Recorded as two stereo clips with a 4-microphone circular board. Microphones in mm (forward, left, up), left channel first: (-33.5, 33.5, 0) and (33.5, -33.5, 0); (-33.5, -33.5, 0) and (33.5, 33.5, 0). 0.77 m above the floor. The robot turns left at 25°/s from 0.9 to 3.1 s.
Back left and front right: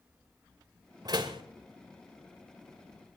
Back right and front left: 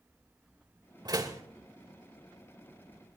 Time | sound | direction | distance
1.1 | a door slam | straight ahead | 2.5 m